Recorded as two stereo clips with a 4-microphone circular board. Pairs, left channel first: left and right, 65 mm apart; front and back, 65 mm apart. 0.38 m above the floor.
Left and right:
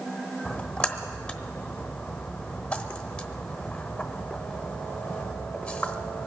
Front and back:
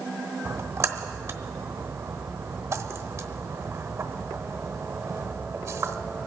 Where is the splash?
160° left, 1.0 m.